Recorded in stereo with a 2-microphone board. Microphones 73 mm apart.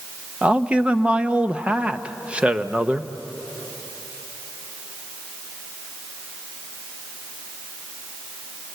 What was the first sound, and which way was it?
A man speaking, 15° right (ahead or behind).